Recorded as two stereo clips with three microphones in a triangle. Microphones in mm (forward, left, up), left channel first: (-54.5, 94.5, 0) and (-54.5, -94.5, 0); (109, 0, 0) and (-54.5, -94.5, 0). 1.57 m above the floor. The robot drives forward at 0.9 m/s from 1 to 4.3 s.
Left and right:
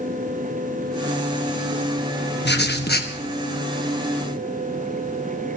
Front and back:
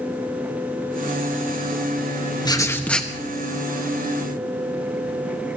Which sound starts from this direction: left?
Writing, at 2.5 s.